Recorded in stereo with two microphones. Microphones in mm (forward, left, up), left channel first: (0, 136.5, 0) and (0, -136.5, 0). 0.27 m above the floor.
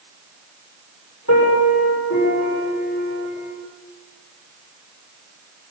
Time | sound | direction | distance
1.3 | a piano | 70° left (ahead or behind) | 9 m